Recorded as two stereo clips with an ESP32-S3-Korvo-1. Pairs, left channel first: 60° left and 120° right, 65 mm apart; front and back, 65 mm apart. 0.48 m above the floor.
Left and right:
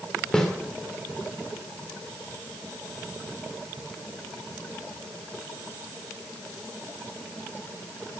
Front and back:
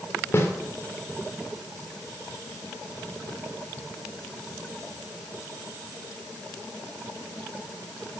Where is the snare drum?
15° right, 1.8 m.